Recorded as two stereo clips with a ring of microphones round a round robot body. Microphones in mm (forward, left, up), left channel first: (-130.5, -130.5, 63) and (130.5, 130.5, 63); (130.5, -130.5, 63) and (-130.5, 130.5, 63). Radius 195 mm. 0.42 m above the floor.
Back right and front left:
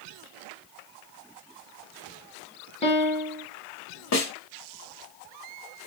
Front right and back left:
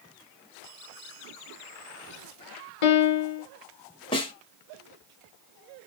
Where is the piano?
60° right, 0.6 m.